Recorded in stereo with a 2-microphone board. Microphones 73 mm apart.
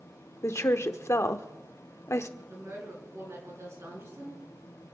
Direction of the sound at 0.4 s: 45° left (ahead or behind).